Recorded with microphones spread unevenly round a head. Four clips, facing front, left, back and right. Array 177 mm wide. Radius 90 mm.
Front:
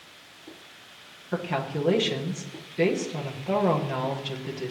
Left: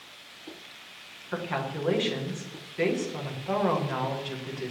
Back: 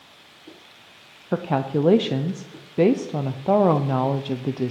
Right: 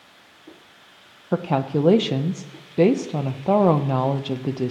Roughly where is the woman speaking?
Behind right.